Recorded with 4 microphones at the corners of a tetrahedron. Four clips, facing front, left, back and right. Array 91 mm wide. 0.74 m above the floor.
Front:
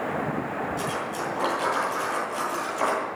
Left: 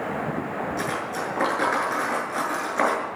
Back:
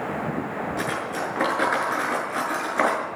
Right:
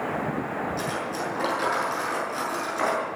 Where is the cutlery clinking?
145° left, 7.5 m.